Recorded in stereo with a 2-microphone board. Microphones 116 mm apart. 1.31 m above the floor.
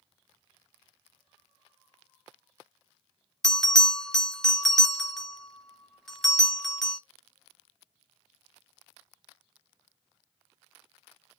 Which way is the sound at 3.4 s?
5° left (ahead or behind).